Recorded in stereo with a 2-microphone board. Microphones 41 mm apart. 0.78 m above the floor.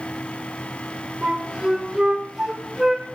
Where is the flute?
10° right (ahead or behind), 4 m.